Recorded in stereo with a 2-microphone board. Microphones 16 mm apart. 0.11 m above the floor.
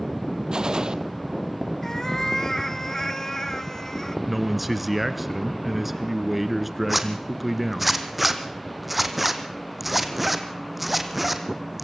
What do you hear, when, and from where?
0.5 s a gunshot: 65° right (ahead or behind), 1.0 m
1.8 s a cat meowing: 30° left (ahead or behind), 0.6 m
4.3 s a man speaking: 10° right (ahead or behind), 1.2 m
6.9 s a zipper: 5° right (ahead or behind), 1.6 m